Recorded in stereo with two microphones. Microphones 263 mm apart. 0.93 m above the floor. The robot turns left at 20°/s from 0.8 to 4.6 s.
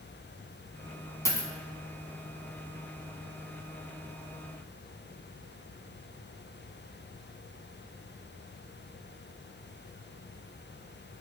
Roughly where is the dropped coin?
Centre.